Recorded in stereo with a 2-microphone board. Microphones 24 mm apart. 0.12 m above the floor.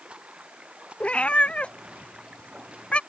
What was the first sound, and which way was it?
Running water, 45° right (ahead or behind).